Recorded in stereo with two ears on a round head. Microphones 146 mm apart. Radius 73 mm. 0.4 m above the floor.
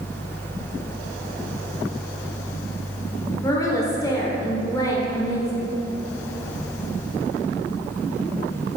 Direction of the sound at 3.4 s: 20° left (ahead or behind).